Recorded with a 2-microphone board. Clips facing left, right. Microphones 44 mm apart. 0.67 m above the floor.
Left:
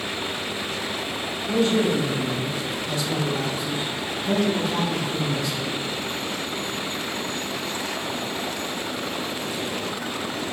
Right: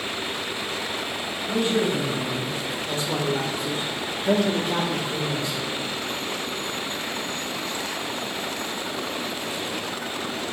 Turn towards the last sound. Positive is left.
turn(degrees=-15)  # may be behind; listen again after turning